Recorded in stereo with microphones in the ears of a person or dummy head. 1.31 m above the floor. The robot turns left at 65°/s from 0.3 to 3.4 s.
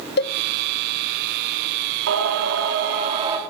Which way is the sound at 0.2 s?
50° left (ahead or behind).